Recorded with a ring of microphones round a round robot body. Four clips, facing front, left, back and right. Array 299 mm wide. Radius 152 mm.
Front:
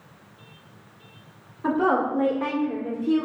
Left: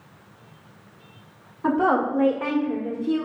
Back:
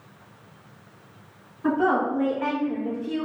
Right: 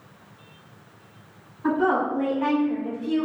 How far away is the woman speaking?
About 1.5 m.